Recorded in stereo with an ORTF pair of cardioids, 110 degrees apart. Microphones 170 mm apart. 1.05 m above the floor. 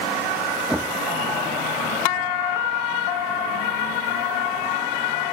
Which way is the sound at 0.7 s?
5° right.